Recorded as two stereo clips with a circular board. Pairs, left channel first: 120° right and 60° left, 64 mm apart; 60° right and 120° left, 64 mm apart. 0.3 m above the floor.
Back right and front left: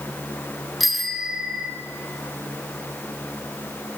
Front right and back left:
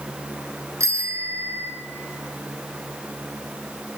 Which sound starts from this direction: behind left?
A bicycle bell, at 0.8 s.